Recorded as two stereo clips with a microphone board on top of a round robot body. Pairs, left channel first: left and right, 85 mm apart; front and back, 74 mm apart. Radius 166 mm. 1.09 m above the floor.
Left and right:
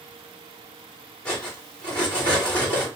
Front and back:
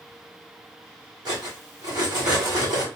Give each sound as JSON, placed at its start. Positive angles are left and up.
{"t": 1.2, "sound": "cutlery clinking", "azimuth_deg": 165, "distance_m": 2.5}